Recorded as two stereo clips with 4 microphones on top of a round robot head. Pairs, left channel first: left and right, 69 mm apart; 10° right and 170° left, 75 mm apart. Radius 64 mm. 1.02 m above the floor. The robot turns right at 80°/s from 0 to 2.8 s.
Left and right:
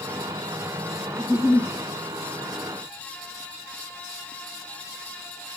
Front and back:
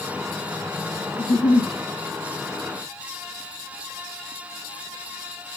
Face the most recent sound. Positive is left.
turn(degrees=100)